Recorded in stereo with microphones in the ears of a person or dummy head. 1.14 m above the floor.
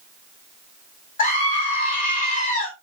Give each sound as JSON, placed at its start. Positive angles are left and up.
{"t": 1.2, "sound": "a scream", "side_deg": 40, "distance_m": 3.5}